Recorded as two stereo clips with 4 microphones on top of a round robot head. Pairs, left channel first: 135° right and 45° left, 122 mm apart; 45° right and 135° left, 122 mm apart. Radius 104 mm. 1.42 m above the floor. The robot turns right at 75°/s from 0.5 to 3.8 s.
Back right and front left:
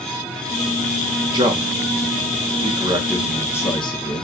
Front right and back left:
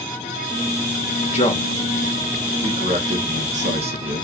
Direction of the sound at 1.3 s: 15° right.